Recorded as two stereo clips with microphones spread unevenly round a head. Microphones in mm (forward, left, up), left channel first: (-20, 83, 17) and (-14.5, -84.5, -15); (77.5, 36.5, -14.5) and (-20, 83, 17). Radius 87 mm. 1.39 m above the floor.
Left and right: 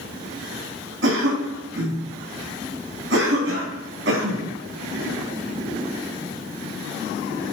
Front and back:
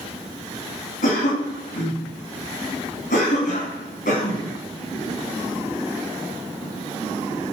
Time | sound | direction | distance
1.0 | a cough | 60° right | 2 m